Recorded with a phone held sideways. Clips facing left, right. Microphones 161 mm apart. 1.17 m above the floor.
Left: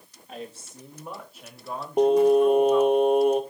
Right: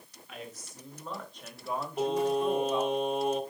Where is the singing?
55° left (ahead or behind), 1.4 m.